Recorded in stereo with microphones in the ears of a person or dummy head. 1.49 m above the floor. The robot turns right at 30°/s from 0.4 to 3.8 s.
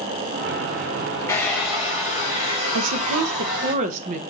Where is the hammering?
No hammering in this recording.